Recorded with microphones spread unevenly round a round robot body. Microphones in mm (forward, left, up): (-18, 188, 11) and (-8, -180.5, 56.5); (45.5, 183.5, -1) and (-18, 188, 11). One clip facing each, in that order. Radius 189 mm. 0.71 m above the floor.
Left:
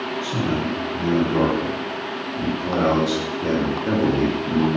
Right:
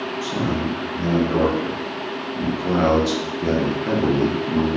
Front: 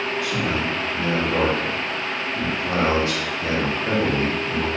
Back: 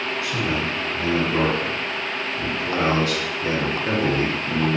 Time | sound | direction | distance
0.2 | a man speaking | 30° right | 2.0 m